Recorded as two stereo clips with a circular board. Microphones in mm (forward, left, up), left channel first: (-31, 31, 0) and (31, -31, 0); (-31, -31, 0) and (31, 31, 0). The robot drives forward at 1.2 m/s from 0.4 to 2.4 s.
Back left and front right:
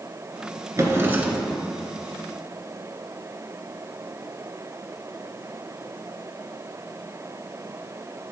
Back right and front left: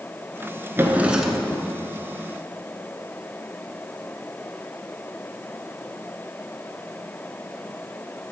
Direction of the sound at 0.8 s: 10° right.